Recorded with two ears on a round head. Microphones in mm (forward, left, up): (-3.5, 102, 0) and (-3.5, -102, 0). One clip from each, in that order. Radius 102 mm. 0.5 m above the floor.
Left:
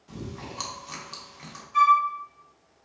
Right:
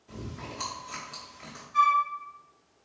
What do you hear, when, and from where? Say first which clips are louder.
0.1 s chewing: left 1 dB; 30° left (ahead or behind), 0.9 m
1.7 s a flute: left 4 dB; 50° left (ahead or behind), 1.9 m